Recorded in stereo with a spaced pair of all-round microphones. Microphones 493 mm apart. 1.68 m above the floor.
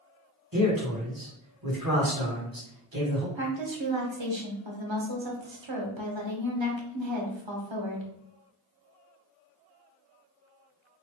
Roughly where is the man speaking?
Right.